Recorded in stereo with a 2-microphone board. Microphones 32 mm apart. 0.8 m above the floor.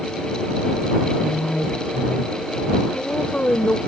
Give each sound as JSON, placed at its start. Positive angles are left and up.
{"t": 1.2, "sound": "a woman speaking", "side_deg": 50}